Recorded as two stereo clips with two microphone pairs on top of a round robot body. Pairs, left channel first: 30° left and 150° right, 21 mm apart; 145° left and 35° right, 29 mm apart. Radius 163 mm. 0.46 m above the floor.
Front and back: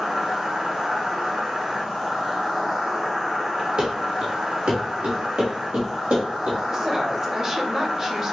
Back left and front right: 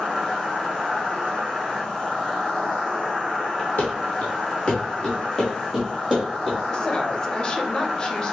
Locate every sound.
0.0 s an insect: 145° right, 2 m
3.8 s running footsteps: 170° left, 0.7 m; by 6.6 s 120° right, 1.8 m
6.7 s a woman speaking: 165° left, 1.2 m